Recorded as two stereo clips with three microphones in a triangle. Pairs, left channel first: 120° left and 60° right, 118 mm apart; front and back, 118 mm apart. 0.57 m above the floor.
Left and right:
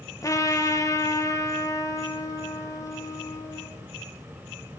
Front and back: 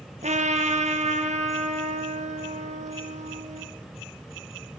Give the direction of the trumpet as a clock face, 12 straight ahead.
6 o'clock.